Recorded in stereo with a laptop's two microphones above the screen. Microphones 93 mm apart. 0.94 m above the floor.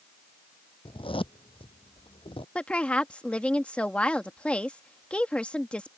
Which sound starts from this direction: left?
A zipper, at 0.8 s.